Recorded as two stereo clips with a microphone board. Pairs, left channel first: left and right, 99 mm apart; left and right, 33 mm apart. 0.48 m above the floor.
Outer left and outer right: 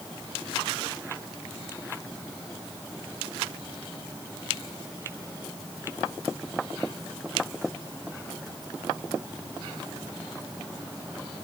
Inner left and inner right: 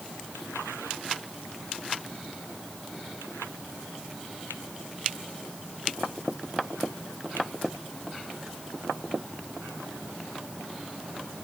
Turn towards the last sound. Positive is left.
No sound to turn to.